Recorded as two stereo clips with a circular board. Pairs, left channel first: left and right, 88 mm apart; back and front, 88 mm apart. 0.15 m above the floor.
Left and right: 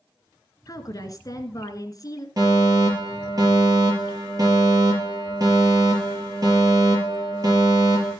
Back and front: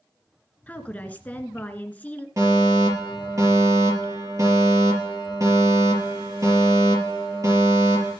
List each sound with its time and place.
0.7 s a woman speaking: 110° left, 1.7 m
2.4 s a fire alarm: 50° right, 5.5 m